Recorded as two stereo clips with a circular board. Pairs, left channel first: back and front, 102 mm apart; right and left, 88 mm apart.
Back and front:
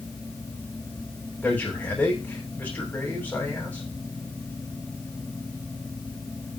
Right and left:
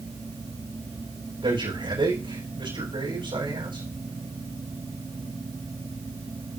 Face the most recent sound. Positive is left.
turn(degrees=105)